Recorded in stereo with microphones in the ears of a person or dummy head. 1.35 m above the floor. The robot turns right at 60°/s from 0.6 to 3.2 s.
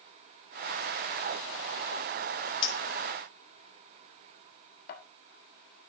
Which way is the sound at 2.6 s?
25° left (ahead or behind).